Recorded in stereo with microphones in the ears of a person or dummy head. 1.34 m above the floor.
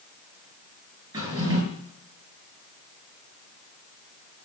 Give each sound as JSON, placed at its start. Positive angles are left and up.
{"t": 1.1, "sound": "a drawer", "side_deg": -25, "distance_m": 5.0}